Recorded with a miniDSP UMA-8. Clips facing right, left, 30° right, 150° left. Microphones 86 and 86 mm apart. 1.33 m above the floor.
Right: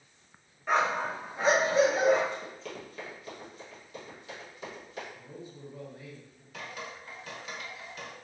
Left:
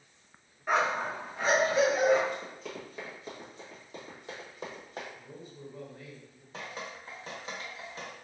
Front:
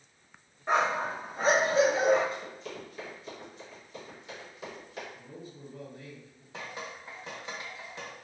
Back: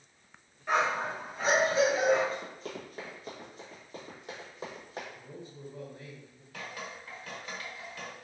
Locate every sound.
0.7 s a dog barking: 10° left, 1.0 m; by 2.2 s 65° right, 1.1 m
2.3 s running footsteps: 175° left, 1.8 m; by 5.0 s 115° left, 2.5 m
5.2 s a man speaking: 155° right, 1.6 m
6.5 s dripping: 30° left, 0.9 m